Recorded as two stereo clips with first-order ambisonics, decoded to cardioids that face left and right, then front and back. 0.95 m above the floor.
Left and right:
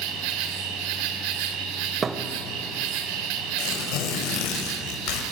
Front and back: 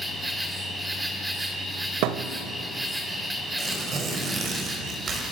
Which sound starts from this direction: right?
An insect, at 0.0 s.